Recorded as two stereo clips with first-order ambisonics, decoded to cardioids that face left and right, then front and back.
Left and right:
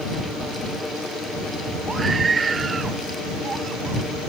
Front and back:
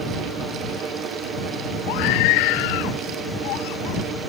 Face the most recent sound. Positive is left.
turn(degrees=-15)